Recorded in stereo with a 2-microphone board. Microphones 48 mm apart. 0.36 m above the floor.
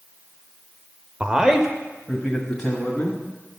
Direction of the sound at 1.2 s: 20° right (ahead or behind).